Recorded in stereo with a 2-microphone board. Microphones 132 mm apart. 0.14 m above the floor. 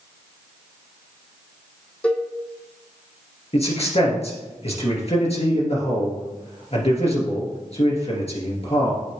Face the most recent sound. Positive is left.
turn(degrees=50)  # may be behind; listen again after turning